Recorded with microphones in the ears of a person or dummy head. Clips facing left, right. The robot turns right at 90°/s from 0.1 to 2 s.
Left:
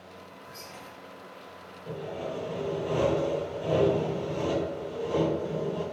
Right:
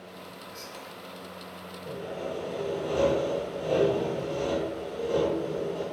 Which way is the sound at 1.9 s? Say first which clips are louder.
Even; 35° right (ahead or behind).